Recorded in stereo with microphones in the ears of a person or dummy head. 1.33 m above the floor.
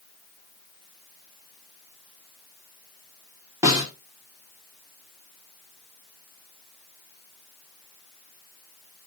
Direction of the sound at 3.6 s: 25° right (ahead or behind).